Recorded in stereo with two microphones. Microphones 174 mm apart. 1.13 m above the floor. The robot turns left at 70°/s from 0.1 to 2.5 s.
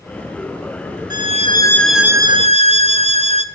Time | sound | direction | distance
1.1 | a violin | 55° left | 0.6 m